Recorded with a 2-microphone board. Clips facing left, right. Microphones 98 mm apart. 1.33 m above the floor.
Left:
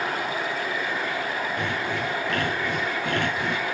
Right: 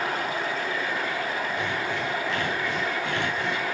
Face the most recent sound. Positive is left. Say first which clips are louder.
# left 1 dB
turn(degrees=55)  # may be behind; listen again after turning